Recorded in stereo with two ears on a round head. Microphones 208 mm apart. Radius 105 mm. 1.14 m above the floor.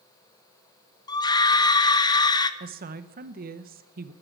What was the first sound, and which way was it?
A scream, 20° left (ahead or behind).